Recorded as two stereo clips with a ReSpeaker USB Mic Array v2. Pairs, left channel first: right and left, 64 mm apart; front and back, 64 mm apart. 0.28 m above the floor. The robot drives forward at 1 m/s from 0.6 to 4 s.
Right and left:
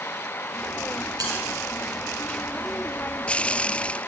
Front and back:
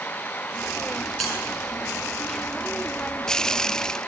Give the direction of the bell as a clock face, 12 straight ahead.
9 o'clock.